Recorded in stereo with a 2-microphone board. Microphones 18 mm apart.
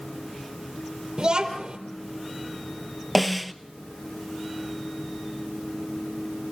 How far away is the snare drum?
About 0.6 m.